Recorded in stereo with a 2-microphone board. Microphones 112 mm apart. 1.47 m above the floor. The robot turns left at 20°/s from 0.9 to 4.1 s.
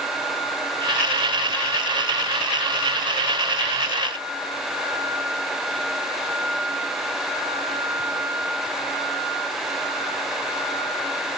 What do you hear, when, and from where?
Only background noise.